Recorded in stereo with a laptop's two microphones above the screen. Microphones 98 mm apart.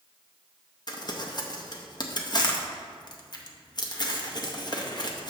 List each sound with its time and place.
0.9 s crumpling: 45° left (ahead or behind), 0.6 m